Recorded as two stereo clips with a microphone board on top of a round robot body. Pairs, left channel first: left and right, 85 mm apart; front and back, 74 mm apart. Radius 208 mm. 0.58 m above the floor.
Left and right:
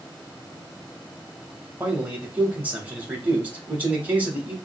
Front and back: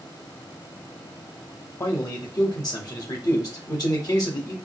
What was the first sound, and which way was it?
A man speaking, 25° right.